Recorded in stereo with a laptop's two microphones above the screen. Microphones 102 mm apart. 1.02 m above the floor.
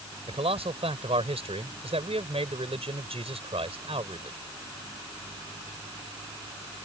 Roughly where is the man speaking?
Right.